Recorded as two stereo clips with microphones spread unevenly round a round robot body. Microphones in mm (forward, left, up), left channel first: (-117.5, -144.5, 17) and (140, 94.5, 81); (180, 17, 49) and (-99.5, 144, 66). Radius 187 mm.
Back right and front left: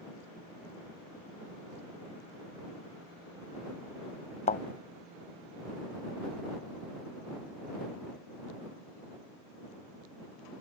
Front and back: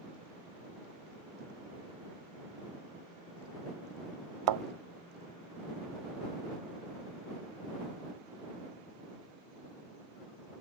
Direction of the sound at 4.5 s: 155° left.